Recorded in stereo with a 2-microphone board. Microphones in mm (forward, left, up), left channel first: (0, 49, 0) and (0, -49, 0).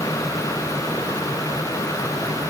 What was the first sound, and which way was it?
Only background noise.